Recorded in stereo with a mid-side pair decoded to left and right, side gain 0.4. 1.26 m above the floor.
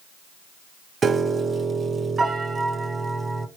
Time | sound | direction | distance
1.0 | a piano | 45° right | 0.8 m